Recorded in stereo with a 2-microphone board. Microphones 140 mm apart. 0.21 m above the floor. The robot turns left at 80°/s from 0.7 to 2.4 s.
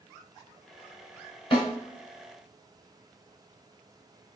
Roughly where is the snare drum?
Left.